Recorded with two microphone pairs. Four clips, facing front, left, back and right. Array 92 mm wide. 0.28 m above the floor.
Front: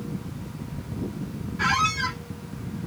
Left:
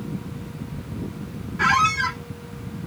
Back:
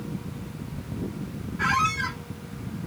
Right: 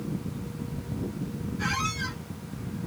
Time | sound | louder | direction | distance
1.6 | a squeak | left 13 dB, even | 80° left | 0.8 m